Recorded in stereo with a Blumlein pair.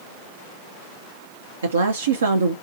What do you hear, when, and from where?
1.6 s a woman speaking: 70° right, 0.7 m